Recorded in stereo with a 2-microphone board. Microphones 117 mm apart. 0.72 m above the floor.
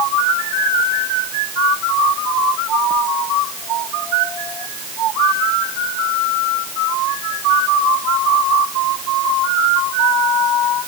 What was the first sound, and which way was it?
Only background noise.